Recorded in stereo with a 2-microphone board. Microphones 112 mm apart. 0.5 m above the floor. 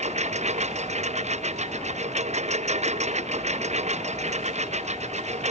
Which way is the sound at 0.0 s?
85° right.